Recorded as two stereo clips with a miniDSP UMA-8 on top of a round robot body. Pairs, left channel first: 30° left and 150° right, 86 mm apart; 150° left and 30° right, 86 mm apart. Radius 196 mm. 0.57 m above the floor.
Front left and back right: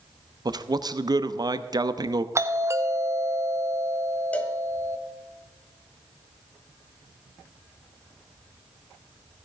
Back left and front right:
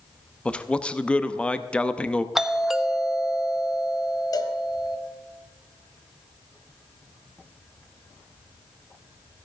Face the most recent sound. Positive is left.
turn(degrees=105)